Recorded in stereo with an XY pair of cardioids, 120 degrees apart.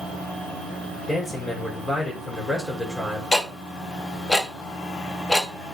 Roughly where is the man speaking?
Ahead.